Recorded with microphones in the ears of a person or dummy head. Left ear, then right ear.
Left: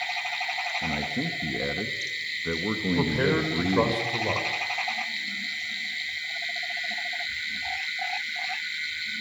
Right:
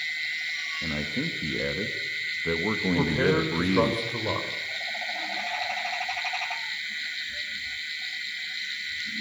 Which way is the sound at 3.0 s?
5° left (ahead or behind).